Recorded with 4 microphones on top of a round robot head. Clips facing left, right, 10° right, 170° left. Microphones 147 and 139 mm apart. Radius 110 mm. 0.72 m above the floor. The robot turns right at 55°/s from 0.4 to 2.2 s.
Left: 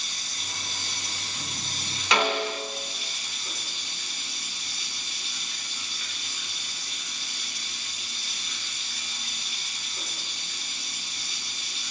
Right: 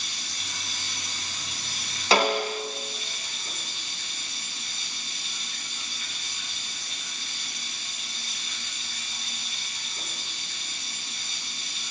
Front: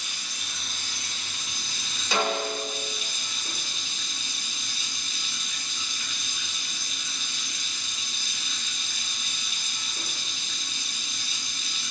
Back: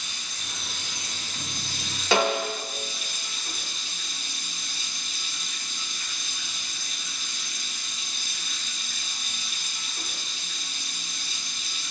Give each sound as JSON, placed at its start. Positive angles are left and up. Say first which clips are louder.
{"t": 0.0, "sound": "running water", "louder": "even, even", "azimuth_deg": -115, "distance_m": 1.4}
{"t": 2.1, "sound": "a snare drum", "louder": "right 3 dB, back 3 dB", "azimuth_deg": -150, "distance_m": 0.8}